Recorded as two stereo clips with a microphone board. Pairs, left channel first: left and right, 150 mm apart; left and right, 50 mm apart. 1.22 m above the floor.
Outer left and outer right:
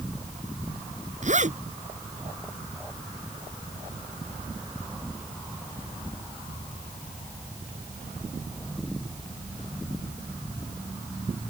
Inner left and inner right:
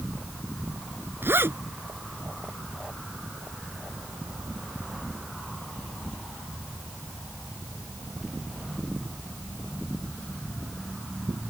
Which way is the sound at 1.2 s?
55° right (ahead or behind).